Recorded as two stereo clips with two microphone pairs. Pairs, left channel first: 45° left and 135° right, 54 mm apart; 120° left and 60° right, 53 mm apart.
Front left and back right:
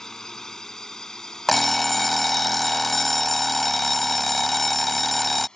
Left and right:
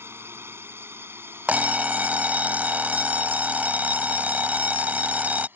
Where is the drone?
35° right; by 5.6 s 25° right.